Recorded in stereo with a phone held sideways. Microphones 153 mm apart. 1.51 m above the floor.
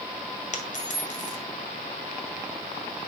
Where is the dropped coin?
50° left (ahead or behind), 1.9 m.